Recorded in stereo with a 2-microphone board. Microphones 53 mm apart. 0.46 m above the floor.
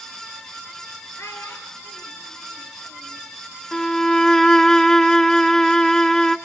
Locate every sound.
1.2 s a child speaking: 55° left (ahead or behind), 6.5 m; by 3.2 s 45° left (ahead or behind), 7.5 m
3.7 s a violin: 10° left (ahead or behind), 0.8 m